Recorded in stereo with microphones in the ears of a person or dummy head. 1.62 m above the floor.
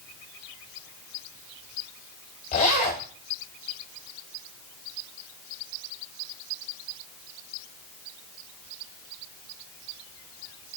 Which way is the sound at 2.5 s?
30° left (ahead or behind).